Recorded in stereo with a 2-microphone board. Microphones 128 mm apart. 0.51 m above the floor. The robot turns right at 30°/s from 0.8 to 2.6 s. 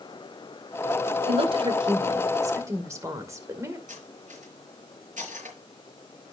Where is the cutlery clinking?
80° right, 4.5 m.